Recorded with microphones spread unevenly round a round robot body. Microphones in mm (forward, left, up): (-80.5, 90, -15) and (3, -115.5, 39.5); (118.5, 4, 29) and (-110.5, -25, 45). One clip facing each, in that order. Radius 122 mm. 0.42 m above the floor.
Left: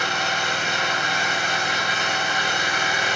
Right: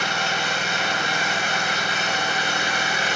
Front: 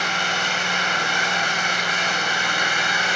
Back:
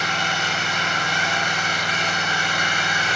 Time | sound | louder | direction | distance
0.0 | an engine running | even, even | 45° left | 2.5 m